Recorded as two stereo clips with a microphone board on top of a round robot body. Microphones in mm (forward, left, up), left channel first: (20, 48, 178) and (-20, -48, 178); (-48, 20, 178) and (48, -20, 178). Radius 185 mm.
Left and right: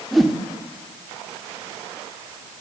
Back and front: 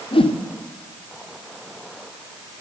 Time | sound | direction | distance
0.1 | a whoosh | 160° left | 2.0 m